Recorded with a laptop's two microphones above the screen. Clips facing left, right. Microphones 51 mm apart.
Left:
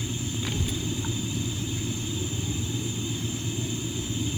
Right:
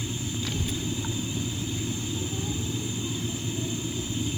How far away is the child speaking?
About 0.6 m.